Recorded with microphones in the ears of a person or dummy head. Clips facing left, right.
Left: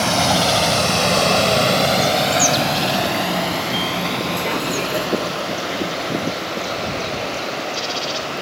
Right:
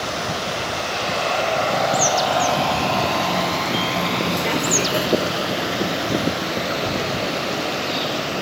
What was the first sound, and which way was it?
A vehicle, 85° left.